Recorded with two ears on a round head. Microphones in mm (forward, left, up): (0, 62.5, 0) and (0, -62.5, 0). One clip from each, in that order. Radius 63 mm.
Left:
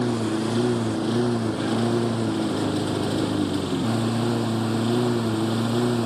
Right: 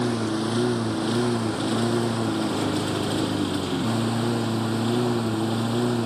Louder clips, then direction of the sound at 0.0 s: Left 1 dB; 30° right (ahead or behind).